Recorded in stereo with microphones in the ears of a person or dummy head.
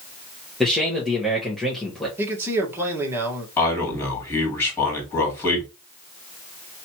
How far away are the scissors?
No scissors in this recording.